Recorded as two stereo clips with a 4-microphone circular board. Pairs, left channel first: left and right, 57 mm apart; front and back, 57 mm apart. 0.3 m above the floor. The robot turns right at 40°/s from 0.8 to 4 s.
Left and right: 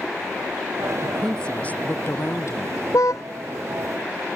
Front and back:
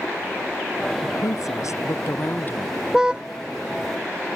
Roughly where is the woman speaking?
Ahead.